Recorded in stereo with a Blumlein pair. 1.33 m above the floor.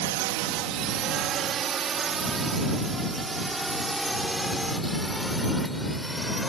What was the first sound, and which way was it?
A drone, 50° right.